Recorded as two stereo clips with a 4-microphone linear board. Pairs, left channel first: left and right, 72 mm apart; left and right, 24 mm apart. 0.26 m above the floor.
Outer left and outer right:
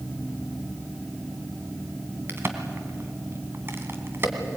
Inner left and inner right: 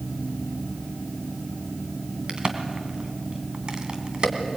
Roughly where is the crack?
Right.